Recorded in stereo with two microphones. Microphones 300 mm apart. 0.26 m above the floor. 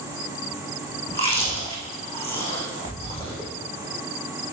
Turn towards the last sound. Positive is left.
turn(degrees=20)  # may be behind; listen again after turning